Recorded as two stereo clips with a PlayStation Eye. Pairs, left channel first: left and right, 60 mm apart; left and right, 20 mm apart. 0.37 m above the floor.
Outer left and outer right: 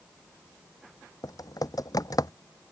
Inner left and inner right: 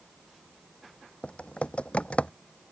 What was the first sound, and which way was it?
Typing on a keyboard, 90° left.